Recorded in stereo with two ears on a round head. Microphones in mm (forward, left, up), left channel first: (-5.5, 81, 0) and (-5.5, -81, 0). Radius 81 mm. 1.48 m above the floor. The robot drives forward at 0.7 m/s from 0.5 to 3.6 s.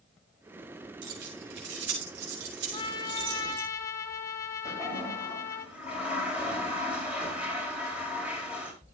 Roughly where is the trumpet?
Left.